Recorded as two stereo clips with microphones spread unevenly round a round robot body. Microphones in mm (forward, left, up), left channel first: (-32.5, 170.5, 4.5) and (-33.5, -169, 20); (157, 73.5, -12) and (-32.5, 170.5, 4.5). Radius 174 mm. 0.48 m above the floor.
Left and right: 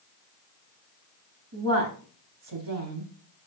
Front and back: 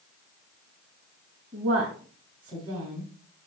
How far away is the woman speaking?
About 4.5 m.